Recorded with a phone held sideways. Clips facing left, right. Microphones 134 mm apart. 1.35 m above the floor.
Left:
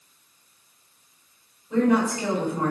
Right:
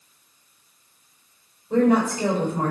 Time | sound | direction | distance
1.7 | a woman speaking | 35° right (ahead or behind) | 4.5 m